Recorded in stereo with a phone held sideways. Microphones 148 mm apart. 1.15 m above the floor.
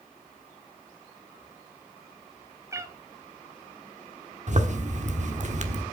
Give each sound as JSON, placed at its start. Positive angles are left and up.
{"t": 2.7, "sound": "a cat meowing", "side_deg": -20, "distance_m": 0.9}
{"t": 4.5, "sound": "a zipper", "side_deg": -50, "distance_m": 1.2}